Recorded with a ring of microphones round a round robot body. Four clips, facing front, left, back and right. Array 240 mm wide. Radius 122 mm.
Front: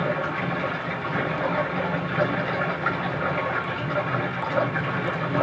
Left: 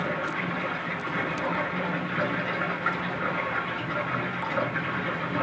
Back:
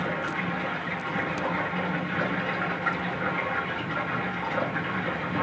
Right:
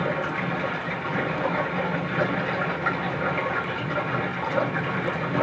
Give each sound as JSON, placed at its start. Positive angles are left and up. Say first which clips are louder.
{"t": 0.0, "sound": "running water", "louder": "right 3 dB, front 4 dB", "azimuth_deg": -30, "distance_m": 7.5}